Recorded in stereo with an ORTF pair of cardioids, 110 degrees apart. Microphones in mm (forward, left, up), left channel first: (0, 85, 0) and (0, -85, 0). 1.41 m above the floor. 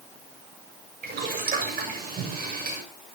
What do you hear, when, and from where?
1.0 s boiling: 60° right, 7 m